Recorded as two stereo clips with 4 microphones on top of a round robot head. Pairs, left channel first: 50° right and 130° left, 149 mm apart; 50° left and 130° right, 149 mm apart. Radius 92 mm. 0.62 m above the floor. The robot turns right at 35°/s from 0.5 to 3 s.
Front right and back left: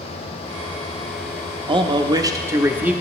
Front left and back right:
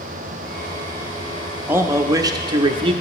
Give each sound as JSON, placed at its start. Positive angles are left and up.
{"t": 1.7, "sound": "a man speaking", "azimuth_deg": 160, "distance_m": 0.8}